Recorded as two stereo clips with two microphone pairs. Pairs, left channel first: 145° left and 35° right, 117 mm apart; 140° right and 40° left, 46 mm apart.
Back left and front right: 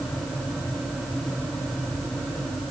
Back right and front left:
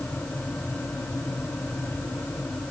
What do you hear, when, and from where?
Only background noise.